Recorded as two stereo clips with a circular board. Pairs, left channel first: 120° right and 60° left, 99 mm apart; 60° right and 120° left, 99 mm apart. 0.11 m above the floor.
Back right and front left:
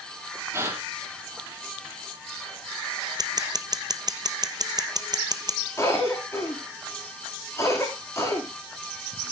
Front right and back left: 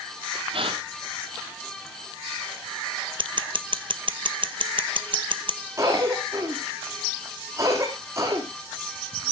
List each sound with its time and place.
0.5 s a gasp: 120° left, 4 m
3.2 s scissors: 100° left, 0.8 m
5.8 s a cough: straight behind, 6.5 m